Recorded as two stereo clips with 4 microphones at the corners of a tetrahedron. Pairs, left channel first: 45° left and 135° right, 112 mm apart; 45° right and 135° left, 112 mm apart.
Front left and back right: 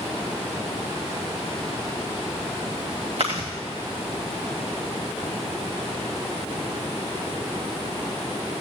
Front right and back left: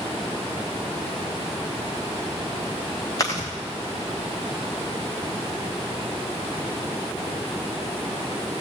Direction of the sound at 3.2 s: 105° right.